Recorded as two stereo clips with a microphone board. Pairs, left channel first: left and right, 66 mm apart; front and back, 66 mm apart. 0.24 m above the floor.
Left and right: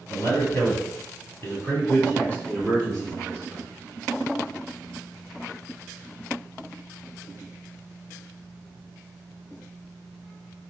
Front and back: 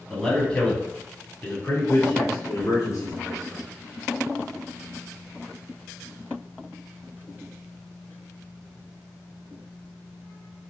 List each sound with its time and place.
0.1 s a man speaking: 80° left, 1.7 m; by 3.7 s 10° left, 2.5 m